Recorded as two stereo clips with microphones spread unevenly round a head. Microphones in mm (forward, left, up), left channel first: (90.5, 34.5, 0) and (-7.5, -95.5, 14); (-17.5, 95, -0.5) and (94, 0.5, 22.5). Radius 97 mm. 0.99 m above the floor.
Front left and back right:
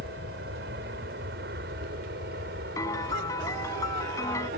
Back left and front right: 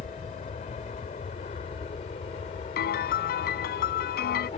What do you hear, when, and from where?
0.0 s an aircraft: 165° right
2.8 s a piano: 130° left